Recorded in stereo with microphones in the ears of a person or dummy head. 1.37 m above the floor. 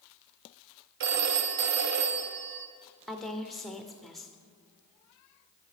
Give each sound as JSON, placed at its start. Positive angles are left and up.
{"t": 1.0, "sound": "a phone ringing", "side_deg": -60, "distance_m": 0.6}
{"t": 3.1, "sound": "a woman speaking", "side_deg": 0, "distance_m": 0.5}